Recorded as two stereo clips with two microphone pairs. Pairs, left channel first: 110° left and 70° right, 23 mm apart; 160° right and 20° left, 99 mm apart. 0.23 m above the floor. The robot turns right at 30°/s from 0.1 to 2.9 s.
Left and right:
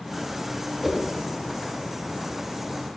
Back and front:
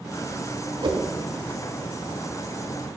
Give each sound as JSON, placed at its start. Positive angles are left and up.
{"t": 0.8, "sound": "a whoosh", "azimuth_deg": -5, "distance_m": 0.6}